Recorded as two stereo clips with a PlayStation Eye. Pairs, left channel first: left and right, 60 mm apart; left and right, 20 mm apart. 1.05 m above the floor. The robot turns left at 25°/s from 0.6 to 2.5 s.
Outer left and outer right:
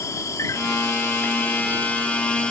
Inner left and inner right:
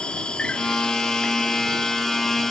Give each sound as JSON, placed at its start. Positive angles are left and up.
{"t": 0.0, "sound": "an insect", "azimuth_deg": 65}